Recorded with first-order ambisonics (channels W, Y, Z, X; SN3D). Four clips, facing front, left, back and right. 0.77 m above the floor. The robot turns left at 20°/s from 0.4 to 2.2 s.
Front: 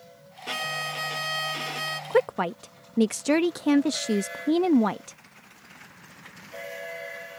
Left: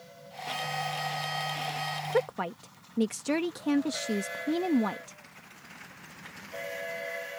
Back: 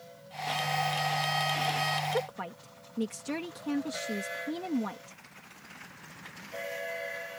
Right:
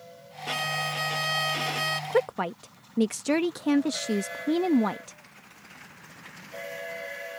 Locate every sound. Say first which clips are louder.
0.5 s a violin: right 4 dB, even; 45° right; by 2.0 s 75° right
2.1 s a woman speaking: right 1 dB, front 9 dB; 15° right; by 5.2 s 20° right